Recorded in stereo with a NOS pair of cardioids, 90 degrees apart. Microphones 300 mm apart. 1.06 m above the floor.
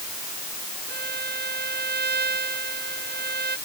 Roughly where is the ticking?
No ticking in this recording.